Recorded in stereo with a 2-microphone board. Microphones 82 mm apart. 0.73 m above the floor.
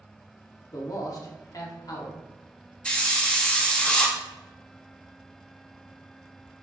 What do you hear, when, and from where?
0.7 s a man speaking: 45° left (ahead or behind), 1.1 m
2.9 s a hiss: 15° left (ahead or behind), 0.7 m